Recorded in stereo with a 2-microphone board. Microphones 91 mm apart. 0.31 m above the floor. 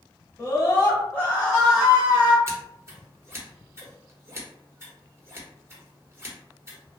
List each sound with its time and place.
0.4 s a scream: 35° left (ahead or behind), 1.2 m; by 2.4 s 20° right (ahead or behind), 1.1 m
2.5 s scissors: 30° right (ahead or behind), 1.0 m